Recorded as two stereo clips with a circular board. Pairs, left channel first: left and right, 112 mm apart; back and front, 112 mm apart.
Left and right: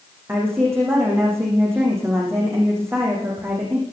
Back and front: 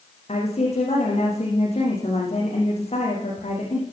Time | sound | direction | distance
0.3 | a woman speaking | 160° right | 8.5 m